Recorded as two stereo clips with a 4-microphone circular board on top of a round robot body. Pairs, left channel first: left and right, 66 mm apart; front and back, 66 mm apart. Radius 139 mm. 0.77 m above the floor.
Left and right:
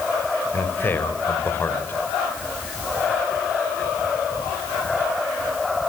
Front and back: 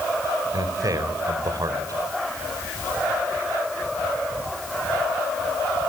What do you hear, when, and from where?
0.5 s a man speaking: 150° left, 4 m